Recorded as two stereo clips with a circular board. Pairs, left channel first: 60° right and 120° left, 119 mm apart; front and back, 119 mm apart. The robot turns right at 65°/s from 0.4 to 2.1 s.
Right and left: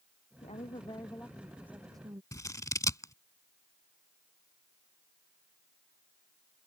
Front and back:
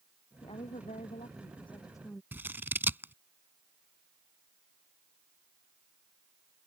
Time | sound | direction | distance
0.4 | a woman speaking | 40° right | ?
2.3 | scissors | 115° right | ?